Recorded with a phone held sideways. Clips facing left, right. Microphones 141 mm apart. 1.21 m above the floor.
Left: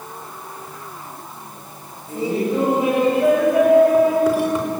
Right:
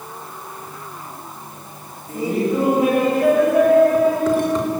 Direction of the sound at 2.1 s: 30° left (ahead or behind).